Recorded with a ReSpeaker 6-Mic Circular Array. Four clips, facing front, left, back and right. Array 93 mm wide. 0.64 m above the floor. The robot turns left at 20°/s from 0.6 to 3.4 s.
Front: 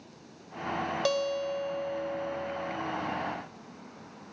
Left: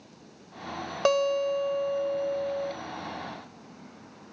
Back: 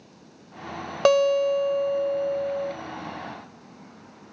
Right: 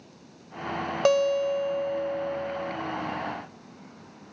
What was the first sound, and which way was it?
A guitar, 175° right.